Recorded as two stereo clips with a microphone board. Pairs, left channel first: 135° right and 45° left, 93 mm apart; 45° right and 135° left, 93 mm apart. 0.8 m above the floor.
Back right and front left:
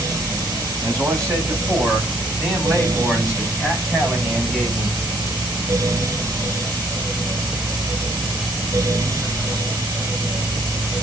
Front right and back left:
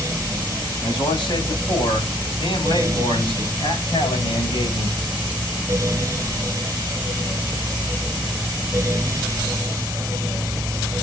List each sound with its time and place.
0.8 s a man speaking: 10° right, 7 m; by 4.9 s 25° right, 7 m